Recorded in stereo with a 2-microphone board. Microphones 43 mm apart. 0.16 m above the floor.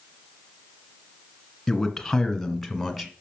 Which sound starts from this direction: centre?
A man speaking, at 1.7 s.